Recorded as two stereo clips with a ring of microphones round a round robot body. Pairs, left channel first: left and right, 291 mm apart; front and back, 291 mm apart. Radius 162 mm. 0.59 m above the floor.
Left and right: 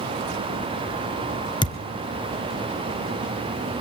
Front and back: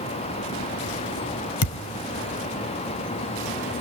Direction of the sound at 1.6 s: 15° left.